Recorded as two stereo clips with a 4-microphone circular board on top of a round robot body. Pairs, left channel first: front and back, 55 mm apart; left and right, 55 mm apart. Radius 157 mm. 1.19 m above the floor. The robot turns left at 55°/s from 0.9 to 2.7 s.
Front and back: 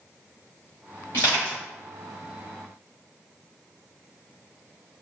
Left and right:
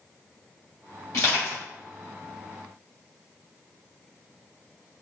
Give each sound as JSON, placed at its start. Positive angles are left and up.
{"t": 1.1, "sound": "crushing", "azimuth_deg": 55, "distance_m": 1.6}